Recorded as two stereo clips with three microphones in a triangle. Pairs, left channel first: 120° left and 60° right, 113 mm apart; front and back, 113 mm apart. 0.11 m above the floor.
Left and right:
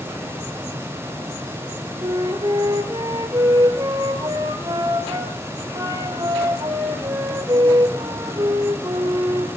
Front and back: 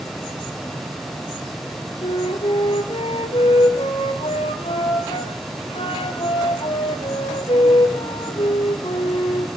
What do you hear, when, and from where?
2.0 s a flute: 15° right, 1.6 m